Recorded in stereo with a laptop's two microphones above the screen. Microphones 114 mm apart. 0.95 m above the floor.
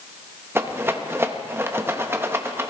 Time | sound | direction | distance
0.6 | a rattle | 20° right (ahead or behind) | 0.7 m